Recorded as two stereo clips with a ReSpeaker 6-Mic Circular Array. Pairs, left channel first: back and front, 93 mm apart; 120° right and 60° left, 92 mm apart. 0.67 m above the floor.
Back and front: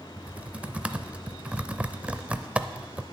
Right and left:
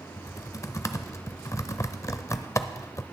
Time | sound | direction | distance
0.2 | typing on a keyboard | 75° right | 0.5 m